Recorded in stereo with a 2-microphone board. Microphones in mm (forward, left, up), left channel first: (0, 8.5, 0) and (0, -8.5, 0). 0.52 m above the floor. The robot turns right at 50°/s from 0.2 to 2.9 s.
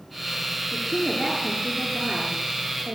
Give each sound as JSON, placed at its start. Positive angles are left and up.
{"t": 0.7, "sound": "a woman speaking", "azimuth_deg": 145, "distance_m": 7.5}